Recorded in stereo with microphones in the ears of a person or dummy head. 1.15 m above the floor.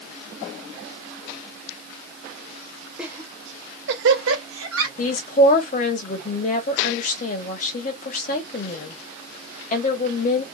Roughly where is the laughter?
Centre.